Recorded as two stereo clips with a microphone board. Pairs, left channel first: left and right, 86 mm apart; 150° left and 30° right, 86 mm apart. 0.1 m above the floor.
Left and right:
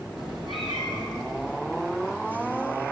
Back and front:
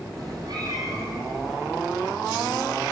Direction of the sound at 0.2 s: Straight ahead.